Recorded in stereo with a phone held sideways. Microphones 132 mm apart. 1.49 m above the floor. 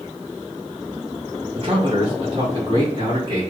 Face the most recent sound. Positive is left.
turn(degrees=-40)  # may be behind; listen again after turning